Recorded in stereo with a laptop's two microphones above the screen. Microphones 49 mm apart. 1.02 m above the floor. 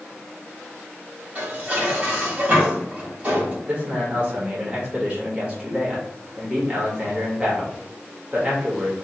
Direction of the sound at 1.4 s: 30° right (ahead or behind).